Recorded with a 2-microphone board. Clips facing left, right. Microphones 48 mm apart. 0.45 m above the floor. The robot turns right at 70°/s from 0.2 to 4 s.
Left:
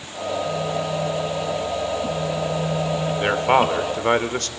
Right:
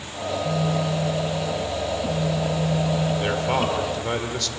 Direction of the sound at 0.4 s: 120° right.